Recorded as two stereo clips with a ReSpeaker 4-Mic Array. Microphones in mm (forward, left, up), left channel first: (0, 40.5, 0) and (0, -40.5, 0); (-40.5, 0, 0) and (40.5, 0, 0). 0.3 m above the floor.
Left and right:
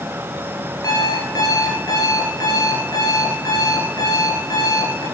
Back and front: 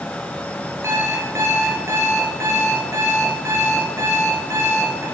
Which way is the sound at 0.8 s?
55° left.